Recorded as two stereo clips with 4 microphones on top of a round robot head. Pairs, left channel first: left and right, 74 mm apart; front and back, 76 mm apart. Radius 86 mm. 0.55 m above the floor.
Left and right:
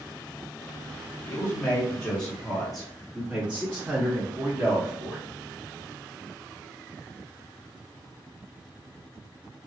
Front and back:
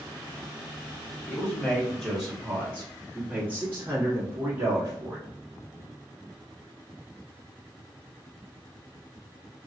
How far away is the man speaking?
About 1.4 m.